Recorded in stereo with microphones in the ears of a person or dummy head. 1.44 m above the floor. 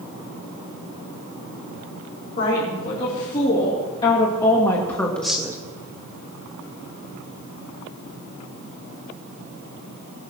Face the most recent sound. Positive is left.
turn(degrees=-20)  # may be behind; listen again after turning